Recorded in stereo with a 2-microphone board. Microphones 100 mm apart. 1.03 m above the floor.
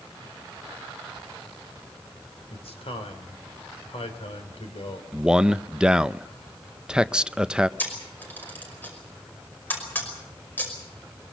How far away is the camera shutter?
About 5.5 m.